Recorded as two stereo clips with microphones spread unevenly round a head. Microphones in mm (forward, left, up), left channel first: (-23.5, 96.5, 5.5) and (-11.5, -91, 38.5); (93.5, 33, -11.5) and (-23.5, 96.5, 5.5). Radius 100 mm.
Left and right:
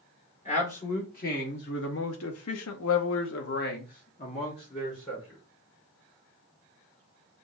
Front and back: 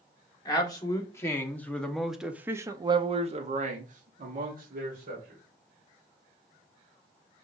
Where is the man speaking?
35° left, 1.6 m; by 5.4 s 165° left, 1.6 m.